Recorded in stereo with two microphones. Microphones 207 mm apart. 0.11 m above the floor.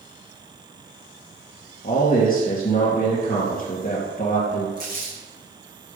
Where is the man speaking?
45° left (ahead or behind), 2.5 m.